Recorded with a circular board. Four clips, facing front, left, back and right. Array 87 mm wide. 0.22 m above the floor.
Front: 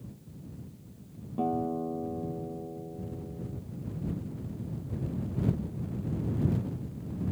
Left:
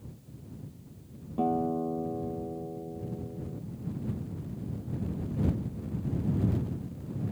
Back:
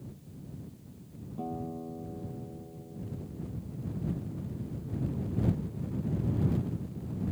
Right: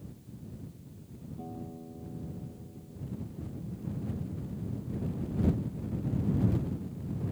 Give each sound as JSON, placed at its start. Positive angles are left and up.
{"t": 1.4, "sound": "a guitar", "azimuth_deg": 60}